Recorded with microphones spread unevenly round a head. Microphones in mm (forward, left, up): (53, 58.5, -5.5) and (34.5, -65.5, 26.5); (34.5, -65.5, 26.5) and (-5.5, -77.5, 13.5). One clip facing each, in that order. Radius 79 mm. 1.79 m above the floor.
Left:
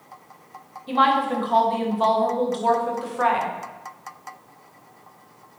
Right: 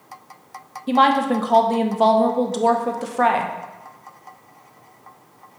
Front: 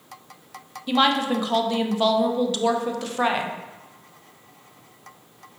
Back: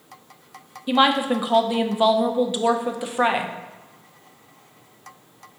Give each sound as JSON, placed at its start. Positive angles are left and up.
{"t": 0.9, "sound": "a woman speaking", "azimuth_deg": -80, "distance_m": 0.8}